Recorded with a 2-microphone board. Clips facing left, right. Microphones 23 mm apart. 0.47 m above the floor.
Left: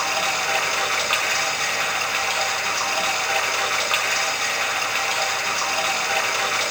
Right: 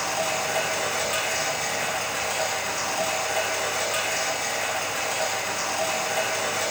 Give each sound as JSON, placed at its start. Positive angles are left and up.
{"t": 0.0, "sound": "running water", "side_deg": 55, "distance_m": 1.7}